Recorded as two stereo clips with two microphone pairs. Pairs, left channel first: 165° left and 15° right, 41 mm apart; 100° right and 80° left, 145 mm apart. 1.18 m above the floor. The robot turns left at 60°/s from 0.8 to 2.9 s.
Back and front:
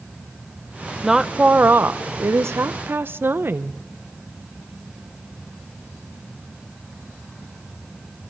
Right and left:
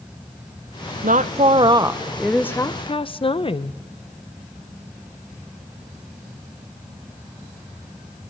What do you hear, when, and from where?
1.0 s a woman speaking: 65° left, 0.6 m; by 3.8 s 45° right, 0.6 m